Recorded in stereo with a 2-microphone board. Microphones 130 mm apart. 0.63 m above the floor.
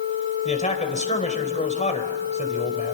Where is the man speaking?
70° left (ahead or behind), 3 m.